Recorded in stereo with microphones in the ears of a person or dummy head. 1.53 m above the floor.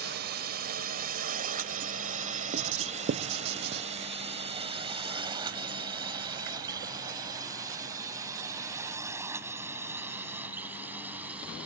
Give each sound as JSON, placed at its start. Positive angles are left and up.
{"t": 0.0, "sound": "a drone", "side_deg": -50}
{"t": 2.5, "sound": "writing", "side_deg": -50}